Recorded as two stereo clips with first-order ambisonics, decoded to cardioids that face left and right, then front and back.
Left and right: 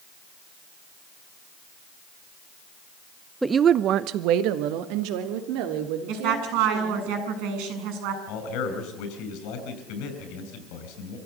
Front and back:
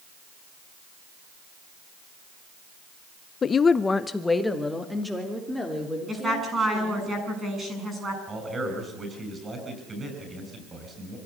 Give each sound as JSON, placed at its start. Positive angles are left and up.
{"t": 3.4, "sound": "a woman speaking", "azimuth_deg": -15, "distance_m": 0.7}
{"t": 6.1, "sound": "a woman speaking", "azimuth_deg": -105, "distance_m": 8.0}
{"t": 8.3, "sound": "a man speaking", "azimuth_deg": 105, "distance_m": 7.0}